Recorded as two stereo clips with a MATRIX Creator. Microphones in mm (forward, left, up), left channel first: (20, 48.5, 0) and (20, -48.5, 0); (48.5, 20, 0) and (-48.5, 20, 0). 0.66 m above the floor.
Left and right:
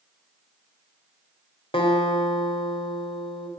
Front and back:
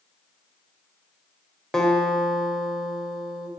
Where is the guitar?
85° left, 2.5 m.